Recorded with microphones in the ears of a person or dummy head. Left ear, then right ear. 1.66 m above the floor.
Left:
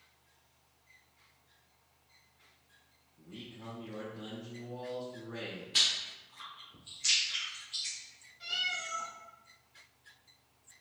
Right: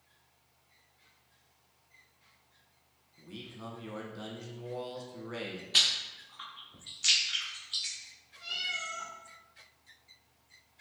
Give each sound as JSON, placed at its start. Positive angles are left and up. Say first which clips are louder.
{"t": 3.2, "sound": "a man speaking", "louder": "right 3 dB", "side_deg": -70, "distance_m": 1.2}
{"t": 5.7, "sound": "chewing", "louder": "right 3 dB", "side_deg": -15, "distance_m": 0.6}
{"t": 8.4, "sound": "a cat meowing", "louder": "left 1 dB", "side_deg": 15, "distance_m": 1.6}